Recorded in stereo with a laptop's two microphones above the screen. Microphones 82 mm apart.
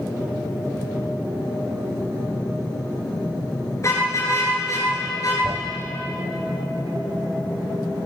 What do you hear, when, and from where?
3.8 s a car horn: 40° left (ahead or behind), 8 m; by 5.3 s 50° left (ahead or behind), 8.5 m
5.4 s a thud: 65° right (ahead or behind), 1.6 m